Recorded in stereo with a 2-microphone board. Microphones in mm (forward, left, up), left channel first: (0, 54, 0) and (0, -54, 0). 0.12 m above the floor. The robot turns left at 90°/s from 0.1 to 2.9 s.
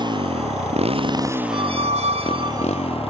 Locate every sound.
0.0 s a motorcycle: 45° right; by 3.1 s 65° left
1.5 s a squeak: 50° right; by 2.9 s 170° right